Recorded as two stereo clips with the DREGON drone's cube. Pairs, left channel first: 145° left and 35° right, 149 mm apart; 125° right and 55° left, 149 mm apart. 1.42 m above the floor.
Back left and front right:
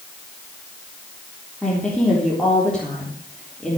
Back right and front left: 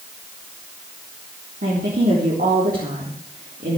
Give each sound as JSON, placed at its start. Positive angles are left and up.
{"t": 1.6, "sound": "a woman speaking", "azimuth_deg": 60, "distance_m": 3.5}